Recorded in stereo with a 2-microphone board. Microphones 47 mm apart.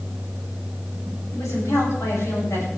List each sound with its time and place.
1.3 s a woman speaking: 80° left, 9 m